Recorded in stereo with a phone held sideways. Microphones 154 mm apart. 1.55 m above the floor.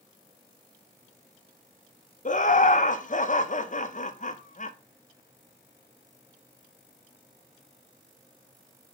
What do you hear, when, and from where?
2.2 s laughter: 55° left (ahead or behind), 0.6 m